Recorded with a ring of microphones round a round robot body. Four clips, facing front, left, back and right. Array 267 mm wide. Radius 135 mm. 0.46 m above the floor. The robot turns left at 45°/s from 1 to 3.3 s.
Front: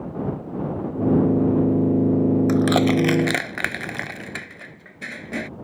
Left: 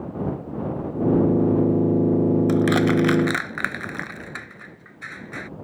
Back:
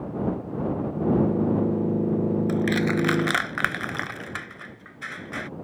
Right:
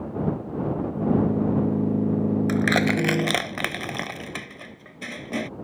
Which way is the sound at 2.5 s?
15° right.